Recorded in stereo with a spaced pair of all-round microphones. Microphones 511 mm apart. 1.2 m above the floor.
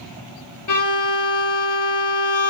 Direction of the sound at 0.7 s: 40° left (ahead or behind).